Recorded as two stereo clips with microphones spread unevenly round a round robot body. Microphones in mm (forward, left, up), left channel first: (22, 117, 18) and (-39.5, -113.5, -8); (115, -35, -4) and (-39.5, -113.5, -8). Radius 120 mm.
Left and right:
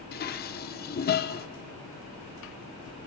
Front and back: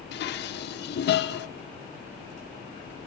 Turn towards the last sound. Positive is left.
turn(degrees=25)